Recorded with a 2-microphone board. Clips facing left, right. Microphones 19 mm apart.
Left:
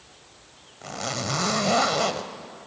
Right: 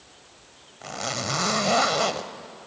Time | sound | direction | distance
0.8 | a zipper | 5° right (ahead or behind) | 0.8 m